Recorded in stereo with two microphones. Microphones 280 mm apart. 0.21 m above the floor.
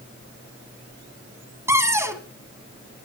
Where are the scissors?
I don't hear scissors.